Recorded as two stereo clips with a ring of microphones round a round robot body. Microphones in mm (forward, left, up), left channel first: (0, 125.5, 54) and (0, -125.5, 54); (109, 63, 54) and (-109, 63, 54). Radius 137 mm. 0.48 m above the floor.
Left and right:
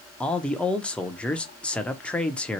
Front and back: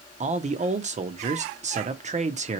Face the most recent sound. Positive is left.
turn(degrees=170)